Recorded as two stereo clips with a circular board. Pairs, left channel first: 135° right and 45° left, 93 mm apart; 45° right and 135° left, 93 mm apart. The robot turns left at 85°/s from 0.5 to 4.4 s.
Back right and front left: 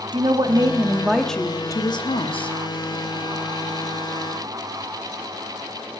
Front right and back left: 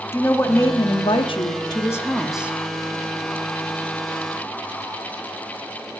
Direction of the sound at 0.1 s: 20° left.